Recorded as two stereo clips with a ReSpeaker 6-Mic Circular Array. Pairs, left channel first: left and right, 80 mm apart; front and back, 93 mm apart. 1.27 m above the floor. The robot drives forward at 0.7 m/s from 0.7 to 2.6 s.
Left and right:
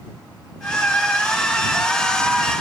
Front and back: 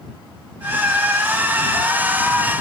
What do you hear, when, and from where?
Only background noise.